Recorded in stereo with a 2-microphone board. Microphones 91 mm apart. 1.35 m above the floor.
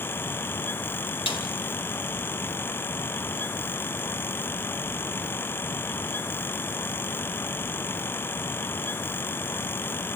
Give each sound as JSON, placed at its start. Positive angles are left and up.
{"t": 1.3, "sound": "a snare drum", "side_deg": 80, "distance_m": 2.0}